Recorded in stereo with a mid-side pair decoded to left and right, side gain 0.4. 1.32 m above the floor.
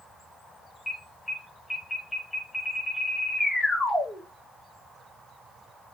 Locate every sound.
0.9 s an alarm: 25° left, 5.5 m